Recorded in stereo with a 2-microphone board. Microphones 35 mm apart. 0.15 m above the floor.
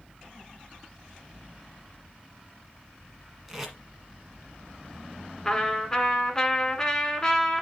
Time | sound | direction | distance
3.5 | tape being pulled | 10° right (ahead or behind) | 1.5 m
5.5 | a trumpet | 15° left (ahead or behind) | 1.9 m